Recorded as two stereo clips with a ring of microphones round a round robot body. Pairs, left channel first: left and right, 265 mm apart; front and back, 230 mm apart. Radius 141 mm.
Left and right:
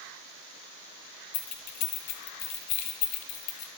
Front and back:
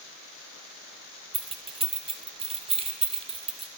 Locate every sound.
1.3 s keys jangling: 115° left, 1.6 m